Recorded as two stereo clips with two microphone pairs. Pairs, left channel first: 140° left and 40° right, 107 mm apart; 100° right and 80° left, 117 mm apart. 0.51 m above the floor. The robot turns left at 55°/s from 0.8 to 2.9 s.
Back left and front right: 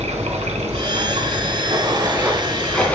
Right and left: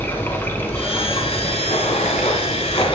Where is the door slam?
I don't hear a door slam.